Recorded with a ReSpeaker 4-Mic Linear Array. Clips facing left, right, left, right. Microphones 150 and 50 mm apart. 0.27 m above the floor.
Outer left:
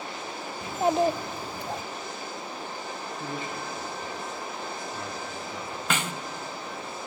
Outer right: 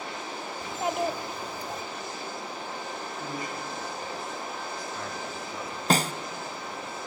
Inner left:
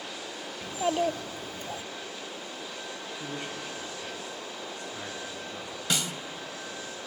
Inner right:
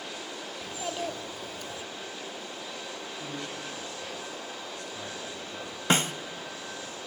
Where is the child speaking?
30° left (ahead or behind), 0.6 m.